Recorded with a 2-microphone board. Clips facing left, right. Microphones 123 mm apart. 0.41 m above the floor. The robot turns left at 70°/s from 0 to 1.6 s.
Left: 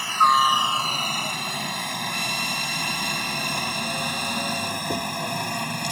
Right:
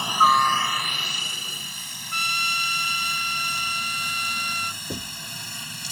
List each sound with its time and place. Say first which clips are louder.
0.0 s a helicopter: even; 20° right (ahead or behind); by 5.9 s 60° left (ahead or behind)
2.1 s a trumpet: left 2 dB; 65° right (ahead or behind)
4.9 s knocking: left 9 dB; 15° left (ahead or behind)